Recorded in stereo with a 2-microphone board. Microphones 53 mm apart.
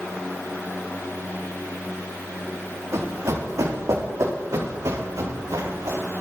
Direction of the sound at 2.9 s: 65° right (ahead or behind).